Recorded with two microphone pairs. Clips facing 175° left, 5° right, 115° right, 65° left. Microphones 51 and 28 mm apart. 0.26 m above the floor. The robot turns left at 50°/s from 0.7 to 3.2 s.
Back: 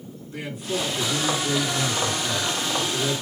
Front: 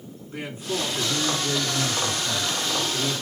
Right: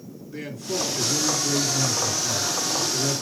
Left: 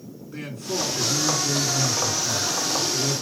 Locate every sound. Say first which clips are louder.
0.3 s a man speaking: back 1 dB, even; 55° left, 2.5 m; by 3.2 s 70° right, 2.5 m